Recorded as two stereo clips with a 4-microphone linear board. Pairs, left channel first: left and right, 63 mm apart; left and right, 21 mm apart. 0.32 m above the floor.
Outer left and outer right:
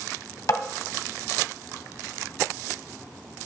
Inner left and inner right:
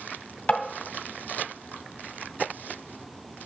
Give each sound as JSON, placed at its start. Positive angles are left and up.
{"t": 0.5, "sound": "tapping", "side_deg": 60, "distance_m": 1.6}